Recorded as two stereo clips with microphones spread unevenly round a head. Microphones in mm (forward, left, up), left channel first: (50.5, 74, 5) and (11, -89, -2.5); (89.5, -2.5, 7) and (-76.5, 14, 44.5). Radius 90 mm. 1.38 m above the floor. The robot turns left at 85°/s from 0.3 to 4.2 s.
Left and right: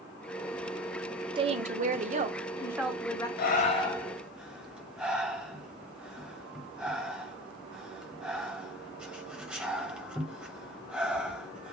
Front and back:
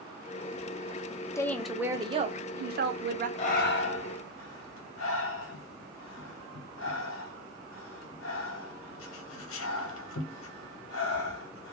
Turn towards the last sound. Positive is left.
turn(degrees=-20)